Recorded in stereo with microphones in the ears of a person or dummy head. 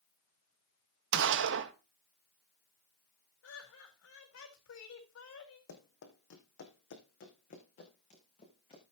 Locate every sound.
1.1 s a gunshot: 70° right (ahead or behind), 1.3 m
3.4 s laughter: 70° left (ahead or behind), 3.5 m
5.7 s running footsteps: 65° left (ahead or behind), 3 m; by 8.8 s 25° left (ahead or behind), 4 m